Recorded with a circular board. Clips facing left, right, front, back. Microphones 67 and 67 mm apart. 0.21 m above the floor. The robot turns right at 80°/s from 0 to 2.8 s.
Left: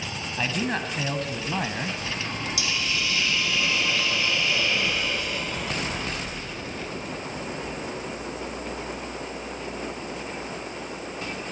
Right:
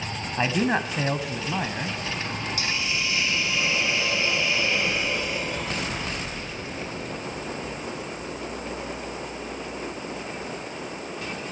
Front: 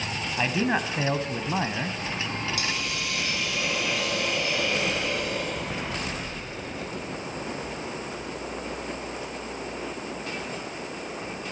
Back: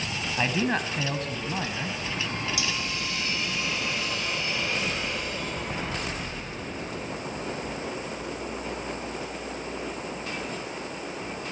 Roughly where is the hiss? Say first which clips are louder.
Even, front 1 dB; ahead right.